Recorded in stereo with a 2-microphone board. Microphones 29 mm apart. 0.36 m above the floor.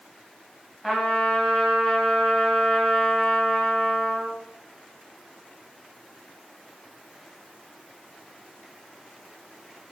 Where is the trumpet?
5° left (ahead or behind), 2 m.